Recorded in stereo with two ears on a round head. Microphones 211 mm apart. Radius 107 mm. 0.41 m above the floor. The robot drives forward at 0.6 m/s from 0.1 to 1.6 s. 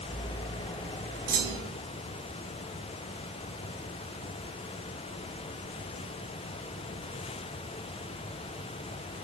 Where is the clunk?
35° right (ahead or behind), 2.0 m; by 1.8 s 40° right (ahead or behind), 1.8 m.